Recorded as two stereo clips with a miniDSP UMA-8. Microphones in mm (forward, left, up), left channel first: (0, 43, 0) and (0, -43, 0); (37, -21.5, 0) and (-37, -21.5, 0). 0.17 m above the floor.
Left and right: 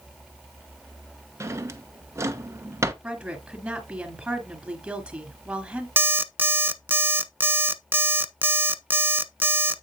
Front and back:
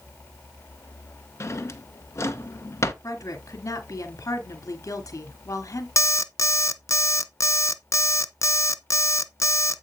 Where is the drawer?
40° right, 1.0 m.